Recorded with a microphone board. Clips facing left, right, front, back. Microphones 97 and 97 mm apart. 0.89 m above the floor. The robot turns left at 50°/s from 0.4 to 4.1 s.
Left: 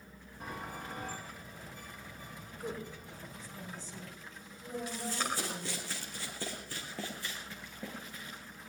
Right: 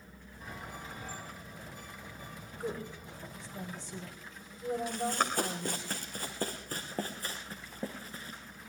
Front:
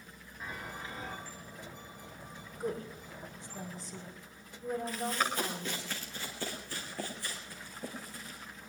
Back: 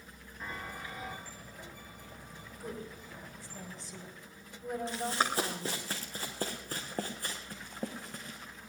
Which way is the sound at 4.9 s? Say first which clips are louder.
Right 3 dB, back 3 dB; 120° right.